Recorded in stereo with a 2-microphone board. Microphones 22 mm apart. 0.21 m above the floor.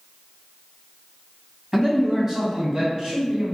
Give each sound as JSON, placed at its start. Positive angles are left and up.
{"t": 1.7, "sound": "a man speaking", "side_deg": -25, "distance_m": 1.6}